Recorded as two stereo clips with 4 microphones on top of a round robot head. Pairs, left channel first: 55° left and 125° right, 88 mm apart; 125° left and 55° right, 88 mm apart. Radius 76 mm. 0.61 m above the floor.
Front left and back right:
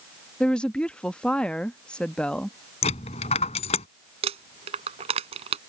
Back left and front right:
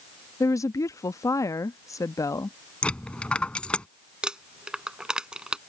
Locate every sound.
0.4 s a woman speaking: 125° left
2.8 s a dropped coin: 45° left
4.2 s crumpling: 135° right